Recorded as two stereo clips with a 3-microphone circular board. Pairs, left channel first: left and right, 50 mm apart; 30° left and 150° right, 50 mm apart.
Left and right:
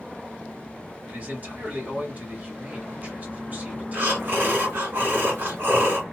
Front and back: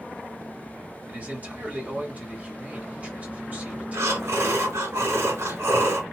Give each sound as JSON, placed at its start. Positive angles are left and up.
{"t": 1.1, "sound": "a man speaking", "azimuth_deg": -115, "distance_m": 1.8}
{"t": 3.9, "sound": "breathing", "azimuth_deg": -135, "distance_m": 2.0}